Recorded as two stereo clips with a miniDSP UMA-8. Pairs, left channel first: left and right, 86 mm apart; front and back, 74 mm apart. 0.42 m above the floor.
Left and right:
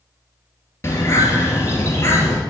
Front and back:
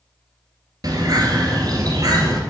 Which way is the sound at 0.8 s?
150° left.